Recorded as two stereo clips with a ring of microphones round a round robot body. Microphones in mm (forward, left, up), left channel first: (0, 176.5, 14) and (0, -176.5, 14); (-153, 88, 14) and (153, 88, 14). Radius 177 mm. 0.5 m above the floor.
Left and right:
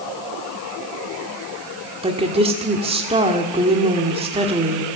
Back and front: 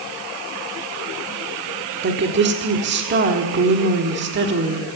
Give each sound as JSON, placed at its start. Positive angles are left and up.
{"t": 2.0, "sound": "a woman speaking", "azimuth_deg": -25, "distance_m": 1.5}